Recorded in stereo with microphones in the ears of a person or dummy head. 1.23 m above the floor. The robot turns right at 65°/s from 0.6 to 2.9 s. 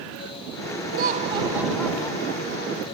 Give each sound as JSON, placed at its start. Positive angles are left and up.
{"t": 0.9, "sound": "laughter", "azimuth_deg": -55}